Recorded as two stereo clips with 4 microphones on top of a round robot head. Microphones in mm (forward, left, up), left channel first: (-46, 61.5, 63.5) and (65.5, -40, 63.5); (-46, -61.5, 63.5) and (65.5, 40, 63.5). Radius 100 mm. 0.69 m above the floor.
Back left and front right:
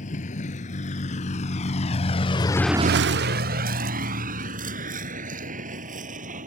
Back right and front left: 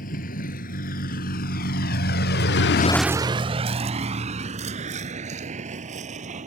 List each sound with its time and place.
0.0 s a vehicle: 175° right; by 6.5 s straight ahead